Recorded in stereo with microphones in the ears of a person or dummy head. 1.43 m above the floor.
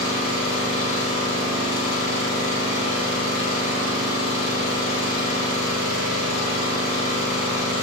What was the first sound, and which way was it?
An engine running, 85° left.